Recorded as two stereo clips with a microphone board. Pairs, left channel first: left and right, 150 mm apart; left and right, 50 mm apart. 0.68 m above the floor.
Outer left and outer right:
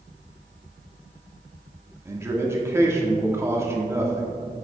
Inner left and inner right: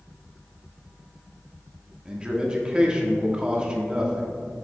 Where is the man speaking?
20° right (ahead or behind), 1.2 m.